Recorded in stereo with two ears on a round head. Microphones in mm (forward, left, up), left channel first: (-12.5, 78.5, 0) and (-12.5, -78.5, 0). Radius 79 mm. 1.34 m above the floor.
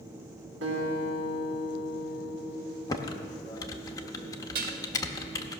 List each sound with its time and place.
0.6 s a guitar: 80° right, 4 m
2.9 s typing on a keyboard: 20° left (ahead or behind), 0.7 m
4.5 s dishes clattering: 55° right (ahead or behind), 1.2 m